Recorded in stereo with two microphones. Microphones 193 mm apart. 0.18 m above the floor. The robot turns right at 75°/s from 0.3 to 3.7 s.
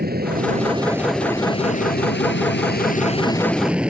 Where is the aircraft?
50° right (ahead or behind); by 3.9 s 5° right (ahead or behind).